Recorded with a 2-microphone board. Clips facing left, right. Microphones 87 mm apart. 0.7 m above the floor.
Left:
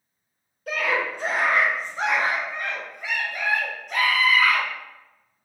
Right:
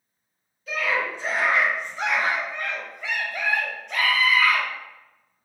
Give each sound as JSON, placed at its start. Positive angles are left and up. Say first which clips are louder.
{"t": 0.7, "sound": "a scream", "louder": "left 1 dB", "side_deg": 60, "distance_m": 0.8}